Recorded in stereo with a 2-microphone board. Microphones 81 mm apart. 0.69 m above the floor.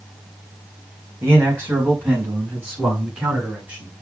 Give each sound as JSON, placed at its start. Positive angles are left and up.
{"t": 1.2, "sound": "a man speaking", "side_deg": -25, "distance_m": 4.0}